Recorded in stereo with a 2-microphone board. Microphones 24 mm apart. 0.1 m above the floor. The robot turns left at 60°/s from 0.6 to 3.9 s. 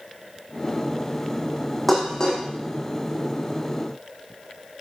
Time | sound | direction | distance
1.9 | dishes clattering | 10° left (ahead or behind) | 4 m